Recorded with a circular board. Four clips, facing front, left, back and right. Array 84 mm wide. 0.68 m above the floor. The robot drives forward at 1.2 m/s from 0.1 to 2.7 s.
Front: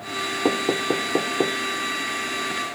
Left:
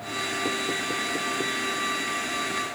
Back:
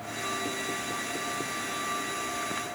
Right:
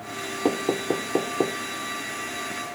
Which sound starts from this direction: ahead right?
Knocking, at 0.5 s.